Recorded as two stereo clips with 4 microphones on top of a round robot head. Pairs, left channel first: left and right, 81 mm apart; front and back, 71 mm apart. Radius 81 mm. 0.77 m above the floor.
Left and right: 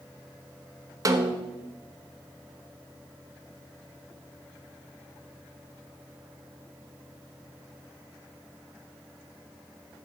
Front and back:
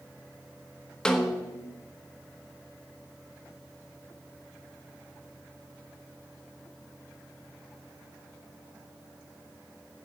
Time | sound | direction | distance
1.1 | a snare drum | 75° right | 1.2 m